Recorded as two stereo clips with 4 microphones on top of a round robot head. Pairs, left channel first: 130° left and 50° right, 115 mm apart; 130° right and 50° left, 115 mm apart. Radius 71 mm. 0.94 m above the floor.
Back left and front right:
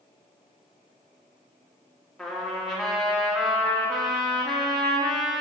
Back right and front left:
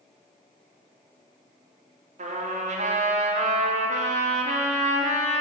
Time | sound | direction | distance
2.2 | a trumpet | 40° left | 2.5 m